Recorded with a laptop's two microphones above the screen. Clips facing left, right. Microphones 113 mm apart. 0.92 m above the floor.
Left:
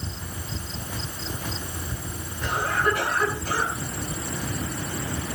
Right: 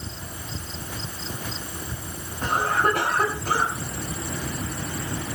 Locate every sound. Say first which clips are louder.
2.4 s a cough: right 2 dB; 50° right (ahead or behind), 7.5 m